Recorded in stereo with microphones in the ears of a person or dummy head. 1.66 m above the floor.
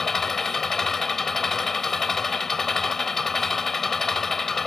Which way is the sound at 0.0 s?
5° left (ahead or behind).